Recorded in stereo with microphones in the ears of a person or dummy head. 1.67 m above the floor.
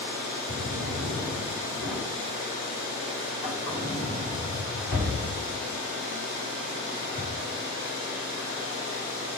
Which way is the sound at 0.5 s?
55° left (ahead or behind).